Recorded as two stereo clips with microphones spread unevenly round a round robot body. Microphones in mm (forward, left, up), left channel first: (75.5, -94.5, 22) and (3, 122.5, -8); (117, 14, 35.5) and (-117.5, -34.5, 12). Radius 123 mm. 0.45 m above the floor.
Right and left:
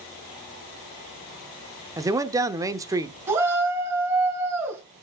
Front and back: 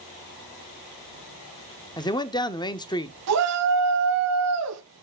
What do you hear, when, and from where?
2.0 s a man speaking: 75° left, 0.9 m
3.3 s a shout: 170° right, 3 m